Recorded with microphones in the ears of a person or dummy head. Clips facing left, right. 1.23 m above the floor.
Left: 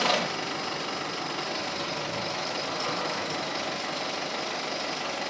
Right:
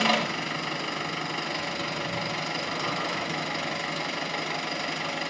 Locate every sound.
0.0 s an engine running: 30° right (ahead or behind), 2 m